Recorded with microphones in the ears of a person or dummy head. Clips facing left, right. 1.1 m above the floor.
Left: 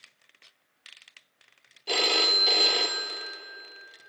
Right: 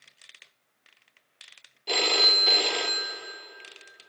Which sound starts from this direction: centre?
A phone ringing, at 1.9 s.